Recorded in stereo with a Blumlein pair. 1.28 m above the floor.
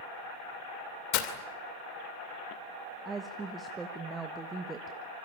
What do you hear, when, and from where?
1.1 s breaking glass: 40° left, 2.5 m
3.0 s a woman speaking: 15° right, 1.3 m